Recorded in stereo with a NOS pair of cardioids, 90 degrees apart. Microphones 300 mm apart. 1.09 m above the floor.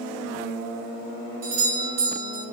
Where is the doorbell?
60° right, 1.6 m.